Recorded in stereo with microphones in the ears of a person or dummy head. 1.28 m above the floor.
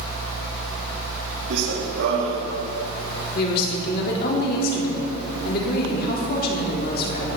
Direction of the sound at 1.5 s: 70° right (ahead or behind).